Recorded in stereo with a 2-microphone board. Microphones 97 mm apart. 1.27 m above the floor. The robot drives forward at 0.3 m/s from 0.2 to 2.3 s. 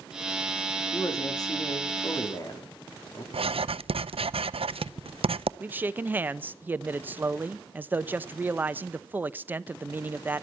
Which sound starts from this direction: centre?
A man speaking, at 5.6 s.